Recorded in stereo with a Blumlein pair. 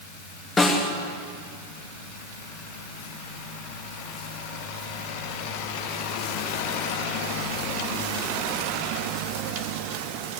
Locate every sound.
0.6 s a snare drum: 15° left, 2.5 m